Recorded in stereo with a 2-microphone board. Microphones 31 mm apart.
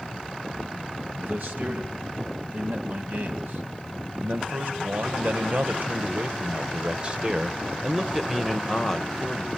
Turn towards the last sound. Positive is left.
turn(degrees=10)  # may be behind; listen again after turning